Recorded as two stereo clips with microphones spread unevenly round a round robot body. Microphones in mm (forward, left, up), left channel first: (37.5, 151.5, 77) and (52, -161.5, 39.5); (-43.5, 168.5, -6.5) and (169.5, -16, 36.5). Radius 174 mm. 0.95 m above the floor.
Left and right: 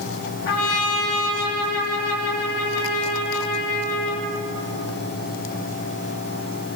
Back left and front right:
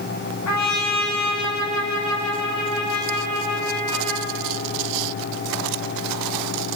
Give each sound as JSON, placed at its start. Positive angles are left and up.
{"t": 0.5, "sound": "a trumpet", "azimuth_deg": 115, "distance_m": 5.0}